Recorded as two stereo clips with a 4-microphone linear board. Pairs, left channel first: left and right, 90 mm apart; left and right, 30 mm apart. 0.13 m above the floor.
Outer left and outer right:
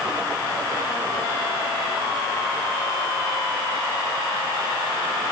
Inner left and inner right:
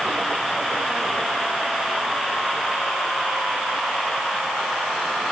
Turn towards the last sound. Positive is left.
No sound to turn to.